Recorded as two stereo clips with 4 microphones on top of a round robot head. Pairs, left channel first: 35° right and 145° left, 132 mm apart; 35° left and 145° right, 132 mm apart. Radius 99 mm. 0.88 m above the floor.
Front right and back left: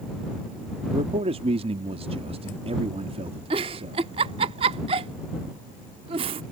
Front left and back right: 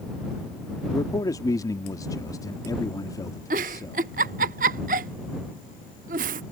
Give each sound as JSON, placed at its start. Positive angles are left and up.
{"t": 0.9, "sound": "a man speaking", "azimuth_deg": 100}
{"t": 3.5, "sound": "a giggle", "azimuth_deg": -165}